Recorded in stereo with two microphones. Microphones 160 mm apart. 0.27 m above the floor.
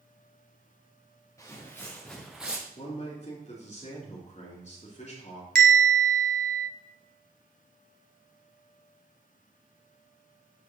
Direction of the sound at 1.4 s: 20° left (ahead or behind).